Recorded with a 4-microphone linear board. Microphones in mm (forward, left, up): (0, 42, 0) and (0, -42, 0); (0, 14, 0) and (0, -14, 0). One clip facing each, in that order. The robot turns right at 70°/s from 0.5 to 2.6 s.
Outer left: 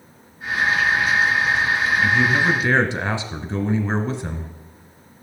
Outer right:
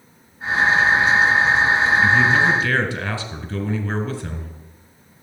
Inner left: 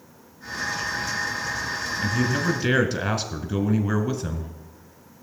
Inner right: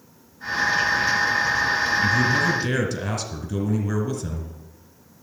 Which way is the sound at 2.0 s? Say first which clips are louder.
Outer right 1 dB, inner right 1 dB; 10° right.